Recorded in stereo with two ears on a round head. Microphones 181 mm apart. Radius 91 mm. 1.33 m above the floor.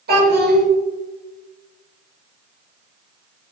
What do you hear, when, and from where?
0.1 s a child speaking: 50° right (ahead or behind), 1.6 m